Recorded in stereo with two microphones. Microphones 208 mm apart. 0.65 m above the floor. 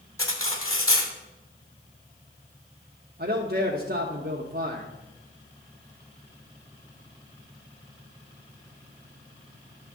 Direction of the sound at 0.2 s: 85° left.